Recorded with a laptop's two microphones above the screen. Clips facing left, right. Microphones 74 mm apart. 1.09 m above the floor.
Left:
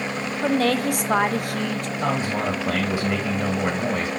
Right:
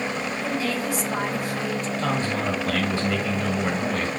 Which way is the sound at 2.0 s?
25° left (ahead or behind).